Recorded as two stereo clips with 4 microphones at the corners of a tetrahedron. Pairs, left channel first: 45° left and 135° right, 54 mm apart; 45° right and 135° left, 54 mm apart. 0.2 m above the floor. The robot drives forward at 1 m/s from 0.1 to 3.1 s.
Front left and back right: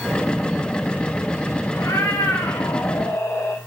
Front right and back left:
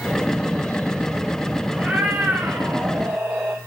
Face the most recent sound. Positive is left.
turn(degrees=80)